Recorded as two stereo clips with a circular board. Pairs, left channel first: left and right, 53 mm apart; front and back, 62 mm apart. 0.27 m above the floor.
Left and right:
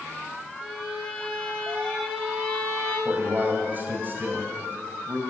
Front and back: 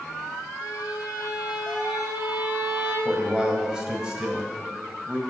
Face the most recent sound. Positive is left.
turn(degrees=-110)